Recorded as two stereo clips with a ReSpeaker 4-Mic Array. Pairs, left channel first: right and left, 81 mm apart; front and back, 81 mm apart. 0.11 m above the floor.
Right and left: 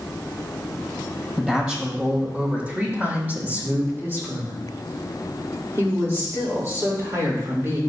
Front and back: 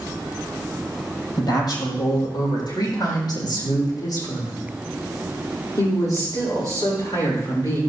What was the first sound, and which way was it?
A woman speaking, 10° left.